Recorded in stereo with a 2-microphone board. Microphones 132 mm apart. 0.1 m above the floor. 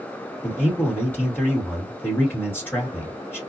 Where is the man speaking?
15° left (ahead or behind), 1.6 m.